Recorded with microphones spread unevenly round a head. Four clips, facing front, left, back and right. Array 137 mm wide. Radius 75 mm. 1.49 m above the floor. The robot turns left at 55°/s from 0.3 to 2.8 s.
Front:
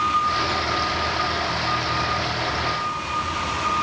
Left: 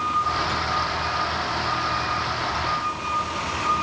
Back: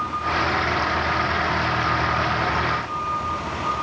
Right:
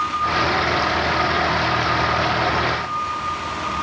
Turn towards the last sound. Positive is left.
No sound to turn to.